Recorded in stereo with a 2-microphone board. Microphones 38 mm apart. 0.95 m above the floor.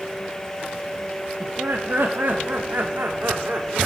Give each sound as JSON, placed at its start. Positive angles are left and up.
{"t": 1.4, "sound": "laughter", "side_deg": -70, "distance_m": 1.9}